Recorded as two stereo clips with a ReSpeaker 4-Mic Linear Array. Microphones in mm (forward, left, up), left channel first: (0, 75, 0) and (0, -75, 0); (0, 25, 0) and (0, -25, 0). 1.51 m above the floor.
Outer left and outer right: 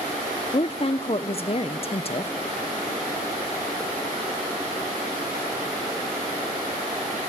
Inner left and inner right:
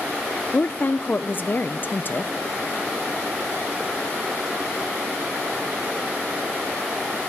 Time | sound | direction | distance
0.5 | a woman speaking | 40° left (ahead or behind) | 0.6 m